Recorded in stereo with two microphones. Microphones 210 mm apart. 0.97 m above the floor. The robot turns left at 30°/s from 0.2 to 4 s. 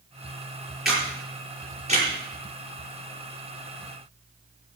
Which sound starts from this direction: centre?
A camera shutter, at 0.8 s.